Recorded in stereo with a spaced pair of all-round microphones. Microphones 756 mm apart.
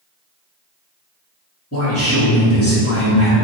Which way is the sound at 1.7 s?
20° left (ahead or behind).